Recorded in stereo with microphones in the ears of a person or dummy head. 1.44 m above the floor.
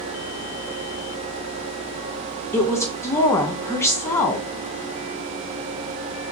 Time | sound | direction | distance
2.5 | a woman speaking | 15° left (ahead or behind) | 0.9 m